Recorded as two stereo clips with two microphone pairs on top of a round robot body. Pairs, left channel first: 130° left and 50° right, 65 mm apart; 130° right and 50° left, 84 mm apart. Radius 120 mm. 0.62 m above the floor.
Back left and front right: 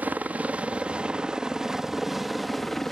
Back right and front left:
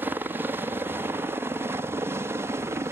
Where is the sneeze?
I don't hear a sneeze.